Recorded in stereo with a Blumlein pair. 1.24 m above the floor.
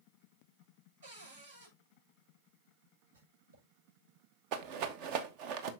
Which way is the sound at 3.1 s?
70° right.